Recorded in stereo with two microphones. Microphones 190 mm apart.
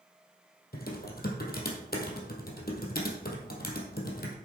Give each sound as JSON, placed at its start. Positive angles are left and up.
{"t": 0.7, "sound": "typing on a keyboard", "side_deg": 60, "distance_m": 1.9}